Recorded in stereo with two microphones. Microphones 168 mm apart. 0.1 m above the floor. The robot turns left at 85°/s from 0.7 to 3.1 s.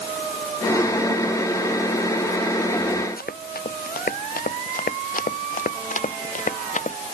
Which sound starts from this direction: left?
Running footsteps, at 3.2 s.